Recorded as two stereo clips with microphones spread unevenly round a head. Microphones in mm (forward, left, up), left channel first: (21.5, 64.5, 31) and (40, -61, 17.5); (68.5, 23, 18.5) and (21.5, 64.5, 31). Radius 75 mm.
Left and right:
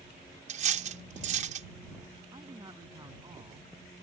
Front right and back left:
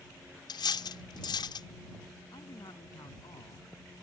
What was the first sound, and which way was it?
Cutlery clinking, 50° right.